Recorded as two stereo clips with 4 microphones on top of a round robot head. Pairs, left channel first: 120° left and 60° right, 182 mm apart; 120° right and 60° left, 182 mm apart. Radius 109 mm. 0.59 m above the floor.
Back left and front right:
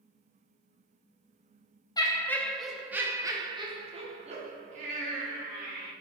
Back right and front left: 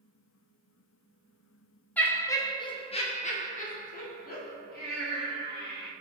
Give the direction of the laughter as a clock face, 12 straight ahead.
6 o'clock.